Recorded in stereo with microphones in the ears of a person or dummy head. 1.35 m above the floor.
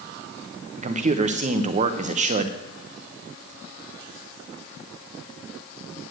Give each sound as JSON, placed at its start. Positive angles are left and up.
{"t": 0.8, "sound": "a man speaking", "side_deg": -35, "distance_m": 1.0}